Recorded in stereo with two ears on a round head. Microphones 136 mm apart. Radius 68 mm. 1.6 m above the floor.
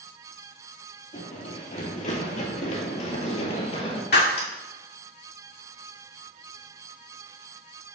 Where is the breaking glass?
65° left (ahead or behind), 2 m.